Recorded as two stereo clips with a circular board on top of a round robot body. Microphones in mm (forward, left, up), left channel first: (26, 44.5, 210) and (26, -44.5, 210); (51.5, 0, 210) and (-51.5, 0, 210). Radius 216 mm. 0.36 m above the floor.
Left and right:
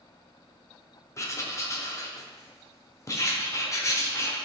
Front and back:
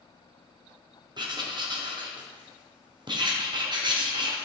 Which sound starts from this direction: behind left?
Writing, at 1.2 s.